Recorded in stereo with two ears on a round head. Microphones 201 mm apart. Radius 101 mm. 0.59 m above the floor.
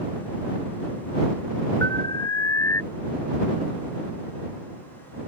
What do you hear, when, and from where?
1.8 s an alarm: 15° left (ahead or behind)